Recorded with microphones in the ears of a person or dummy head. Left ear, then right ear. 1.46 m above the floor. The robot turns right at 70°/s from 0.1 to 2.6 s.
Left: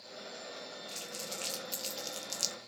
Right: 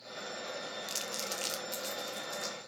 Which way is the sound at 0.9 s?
50° right (ahead or behind).